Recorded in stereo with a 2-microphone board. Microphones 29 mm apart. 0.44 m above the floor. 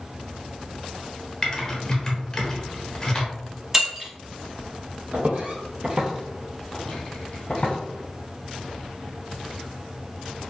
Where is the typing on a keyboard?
20° left (ahead or behind), 0.7 m.